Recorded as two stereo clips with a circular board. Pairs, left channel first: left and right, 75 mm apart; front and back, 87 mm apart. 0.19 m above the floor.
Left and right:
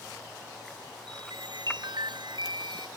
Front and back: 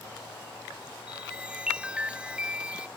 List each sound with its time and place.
1.1 s a chime: 100° right